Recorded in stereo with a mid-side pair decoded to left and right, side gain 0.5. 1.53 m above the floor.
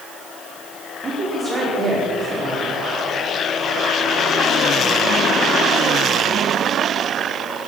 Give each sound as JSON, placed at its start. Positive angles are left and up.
{"t": 1.0, "sound": "a woman speaking", "azimuth_deg": -40, "distance_m": 5.0}